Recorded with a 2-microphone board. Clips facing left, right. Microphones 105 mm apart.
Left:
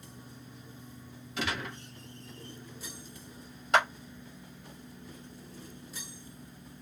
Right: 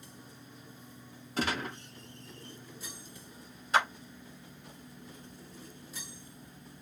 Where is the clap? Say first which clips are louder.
Left 2 dB; 70° left (ahead or behind), 1.1 m.